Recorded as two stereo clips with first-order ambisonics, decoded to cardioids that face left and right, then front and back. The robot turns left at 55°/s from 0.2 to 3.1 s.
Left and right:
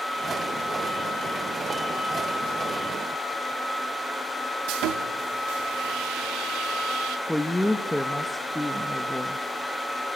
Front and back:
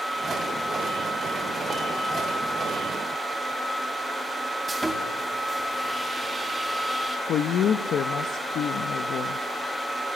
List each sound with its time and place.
4.7 s sawing: 100° right, 2.0 m
7.3 s a woman speaking: 5° left, 0.9 m